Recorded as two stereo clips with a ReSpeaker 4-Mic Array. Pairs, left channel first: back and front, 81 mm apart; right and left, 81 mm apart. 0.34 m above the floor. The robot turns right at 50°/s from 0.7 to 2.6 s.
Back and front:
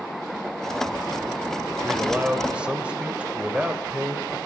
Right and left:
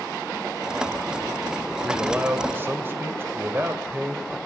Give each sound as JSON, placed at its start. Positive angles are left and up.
{"t": 1.8, "sound": "a man speaking", "azimuth_deg": 25, "distance_m": 1.5}